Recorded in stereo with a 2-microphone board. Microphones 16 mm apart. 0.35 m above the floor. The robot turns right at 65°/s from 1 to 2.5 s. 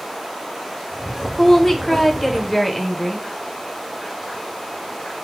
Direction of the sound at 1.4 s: 15° left (ahead or behind).